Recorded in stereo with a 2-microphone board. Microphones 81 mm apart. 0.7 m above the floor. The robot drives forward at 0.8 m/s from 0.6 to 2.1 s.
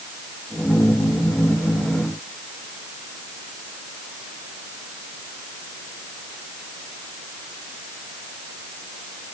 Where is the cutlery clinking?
No cutlery clinking in this recording.